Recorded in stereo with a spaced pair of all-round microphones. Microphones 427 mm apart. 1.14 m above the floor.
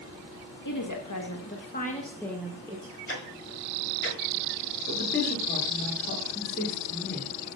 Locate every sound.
0.7 s a woman speaking: 50° left (ahead or behind), 1.6 m; by 3.0 s 20° right (ahead or behind), 1.1 m
3.1 s ticking: 30° left (ahead or behind), 1.2 m
4.9 s a woman speaking: 25° left (ahead or behind), 2.5 m